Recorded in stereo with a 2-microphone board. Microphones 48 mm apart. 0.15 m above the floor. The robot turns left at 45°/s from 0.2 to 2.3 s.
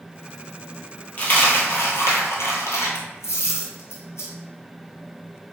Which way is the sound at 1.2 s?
30° left (ahead or behind).